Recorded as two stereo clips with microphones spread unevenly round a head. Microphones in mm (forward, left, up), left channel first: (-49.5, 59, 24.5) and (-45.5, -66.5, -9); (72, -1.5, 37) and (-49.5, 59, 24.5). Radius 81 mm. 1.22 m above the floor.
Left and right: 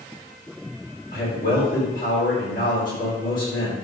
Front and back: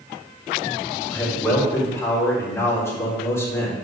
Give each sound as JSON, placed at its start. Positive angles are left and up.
{"t": 1.1, "sound": "a man speaking", "azimuth_deg": 45, "distance_m": 4.0}